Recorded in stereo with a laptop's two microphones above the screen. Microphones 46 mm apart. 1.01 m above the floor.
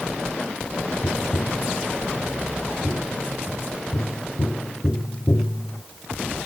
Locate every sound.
1.0 s tapping: 35° left (ahead or behind)